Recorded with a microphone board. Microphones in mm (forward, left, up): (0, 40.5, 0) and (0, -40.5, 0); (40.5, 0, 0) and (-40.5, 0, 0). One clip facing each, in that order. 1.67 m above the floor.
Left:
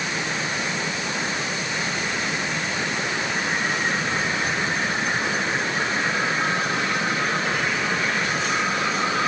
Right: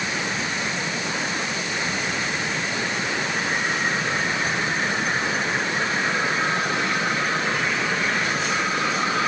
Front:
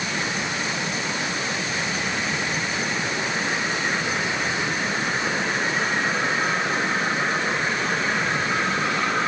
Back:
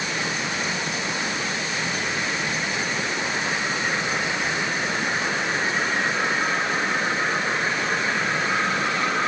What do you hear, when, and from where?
Only background noise.